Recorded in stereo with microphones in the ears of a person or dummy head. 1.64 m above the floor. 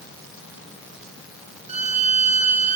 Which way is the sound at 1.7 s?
35° right (ahead or behind).